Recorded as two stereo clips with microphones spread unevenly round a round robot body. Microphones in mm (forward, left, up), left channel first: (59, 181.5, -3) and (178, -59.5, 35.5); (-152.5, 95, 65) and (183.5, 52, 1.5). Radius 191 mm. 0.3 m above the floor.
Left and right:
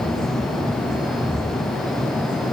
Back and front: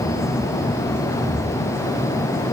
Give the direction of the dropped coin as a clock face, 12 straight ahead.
I don't hear a dropped coin.